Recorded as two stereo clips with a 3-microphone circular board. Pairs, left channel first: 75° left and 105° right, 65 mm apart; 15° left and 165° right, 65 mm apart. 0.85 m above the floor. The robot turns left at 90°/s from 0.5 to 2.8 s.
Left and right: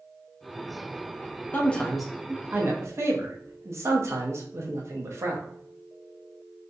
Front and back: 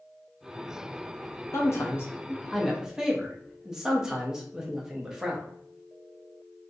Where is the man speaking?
25° left, 0.6 m; by 5.5 s 90° right, 0.6 m.